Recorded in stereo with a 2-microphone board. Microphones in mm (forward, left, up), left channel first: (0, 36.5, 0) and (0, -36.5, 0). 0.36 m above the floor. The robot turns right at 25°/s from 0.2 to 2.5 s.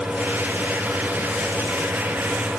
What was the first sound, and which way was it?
Only background noise.